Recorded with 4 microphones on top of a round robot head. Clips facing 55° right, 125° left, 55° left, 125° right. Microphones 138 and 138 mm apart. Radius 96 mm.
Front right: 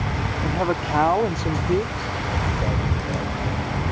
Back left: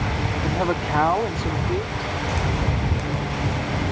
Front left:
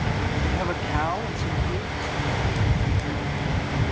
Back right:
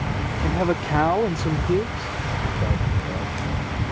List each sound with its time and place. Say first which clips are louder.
0.4 s a man speaking: front right 1 dB, back right 4 dB; 150° right; by 3.3 s 110° right